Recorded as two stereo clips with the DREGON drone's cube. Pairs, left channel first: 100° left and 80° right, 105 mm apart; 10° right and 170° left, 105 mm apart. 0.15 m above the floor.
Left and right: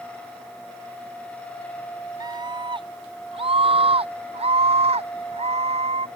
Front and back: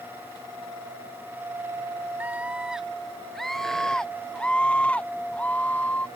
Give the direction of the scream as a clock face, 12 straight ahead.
4 o'clock.